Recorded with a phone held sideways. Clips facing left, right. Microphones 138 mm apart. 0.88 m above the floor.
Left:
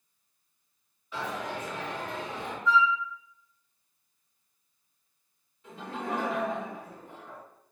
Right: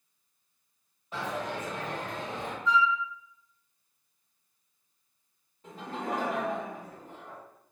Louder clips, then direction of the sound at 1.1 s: Right 1 dB; 50° right (ahead or behind).